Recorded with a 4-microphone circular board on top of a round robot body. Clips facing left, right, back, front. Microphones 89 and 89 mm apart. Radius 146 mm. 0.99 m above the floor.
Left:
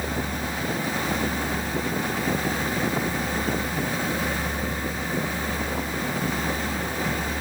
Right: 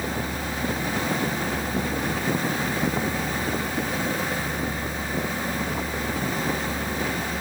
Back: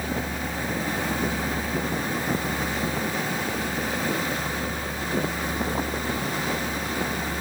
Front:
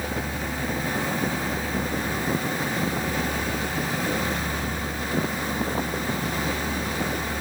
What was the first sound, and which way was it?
Only background noise.